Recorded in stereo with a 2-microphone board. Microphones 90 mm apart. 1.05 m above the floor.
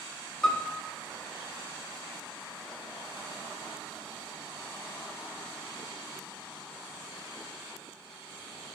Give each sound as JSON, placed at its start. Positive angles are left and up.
{"t": 0.4, "sound": "a piano", "side_deg": 10, "distance_m": 0.7}